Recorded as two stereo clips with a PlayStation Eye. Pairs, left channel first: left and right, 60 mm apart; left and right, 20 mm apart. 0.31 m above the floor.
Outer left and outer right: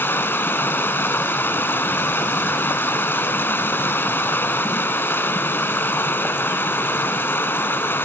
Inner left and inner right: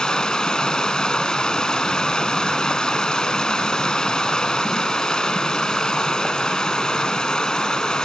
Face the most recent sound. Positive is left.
turn(degrees=40)  # may be behind; listen again after turning